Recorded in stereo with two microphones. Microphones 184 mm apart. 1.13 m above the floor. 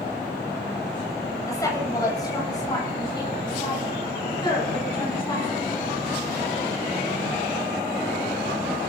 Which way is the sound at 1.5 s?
20° left (ahead or behind).